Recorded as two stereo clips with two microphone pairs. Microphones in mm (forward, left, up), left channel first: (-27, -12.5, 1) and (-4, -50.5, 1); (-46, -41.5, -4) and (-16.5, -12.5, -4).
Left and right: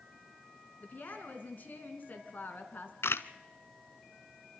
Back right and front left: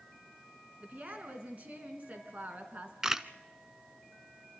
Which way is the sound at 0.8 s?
80° left.